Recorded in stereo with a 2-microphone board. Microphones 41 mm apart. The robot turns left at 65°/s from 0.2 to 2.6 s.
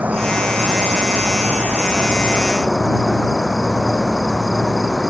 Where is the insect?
35° right; by 5.1 s 170° left.